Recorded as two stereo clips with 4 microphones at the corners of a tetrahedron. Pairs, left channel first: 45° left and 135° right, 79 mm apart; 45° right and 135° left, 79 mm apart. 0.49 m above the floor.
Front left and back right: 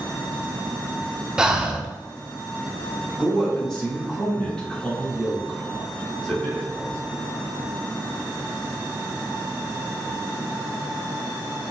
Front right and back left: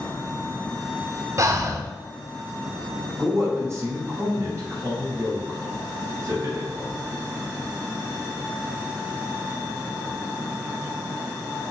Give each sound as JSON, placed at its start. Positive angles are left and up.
{"t": 1.4, "sound": "breathing", "azimuth_deg": 145, "distance_m": 0.5}
{"t": 3.2, "sound": "a man speaking", "azimuth_deg": 120, "distance_m": 1.6}